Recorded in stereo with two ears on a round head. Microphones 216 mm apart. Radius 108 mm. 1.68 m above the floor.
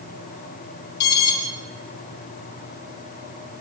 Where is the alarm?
75° left (ahead or behind), 7 m.